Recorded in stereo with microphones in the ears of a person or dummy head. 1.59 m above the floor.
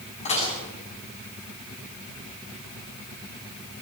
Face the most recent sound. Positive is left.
turn(degrees=35)  # may be behind; listen again after turning